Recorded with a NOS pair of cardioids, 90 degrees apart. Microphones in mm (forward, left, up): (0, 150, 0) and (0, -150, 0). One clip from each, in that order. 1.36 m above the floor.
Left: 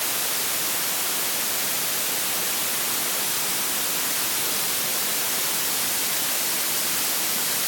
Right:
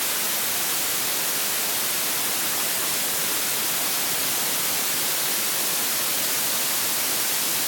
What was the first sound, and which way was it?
Only background noise.